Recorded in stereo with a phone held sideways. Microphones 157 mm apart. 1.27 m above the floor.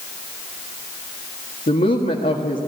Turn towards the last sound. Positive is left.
turn(degrees=60)  # may be behind; listen again after turning